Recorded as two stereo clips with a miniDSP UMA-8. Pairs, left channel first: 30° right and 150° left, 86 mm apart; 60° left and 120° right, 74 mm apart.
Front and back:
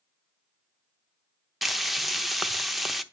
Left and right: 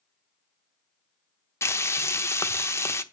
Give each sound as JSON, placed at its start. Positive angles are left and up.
{"t": 1.6, "sound": "frying", "azimuth_deg": 65, "distance_m": 0.8}